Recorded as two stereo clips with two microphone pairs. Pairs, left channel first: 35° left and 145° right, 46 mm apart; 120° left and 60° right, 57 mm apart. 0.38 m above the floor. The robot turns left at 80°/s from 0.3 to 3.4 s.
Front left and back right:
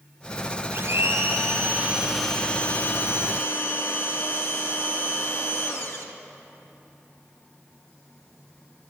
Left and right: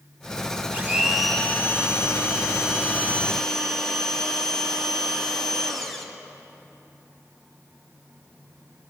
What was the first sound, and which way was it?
A blender, 115° right.